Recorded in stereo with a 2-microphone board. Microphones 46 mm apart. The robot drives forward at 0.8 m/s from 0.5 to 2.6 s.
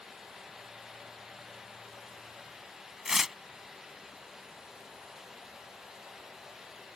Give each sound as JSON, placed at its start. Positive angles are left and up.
{"t": 3.0, "sound": "tearing paper", "side_deg": -5}